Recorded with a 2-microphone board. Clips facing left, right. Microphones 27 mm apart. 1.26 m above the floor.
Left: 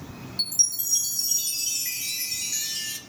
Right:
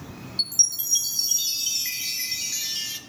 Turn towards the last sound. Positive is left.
turn(degrees=-35)  # may be behind; listen again after turning